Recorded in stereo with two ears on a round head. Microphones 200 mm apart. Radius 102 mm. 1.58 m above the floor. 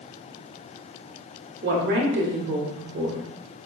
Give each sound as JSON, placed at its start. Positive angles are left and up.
{"t": 1.6, "sound": "a woman speaking", "side_deg": -55, "distance_m": 1.0}